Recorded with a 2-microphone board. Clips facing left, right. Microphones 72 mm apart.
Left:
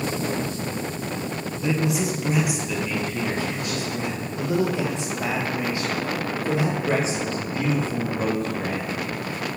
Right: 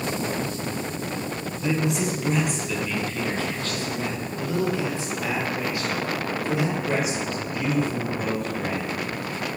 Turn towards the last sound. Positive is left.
turn(degrees=35)  # may be behind; listen again after turning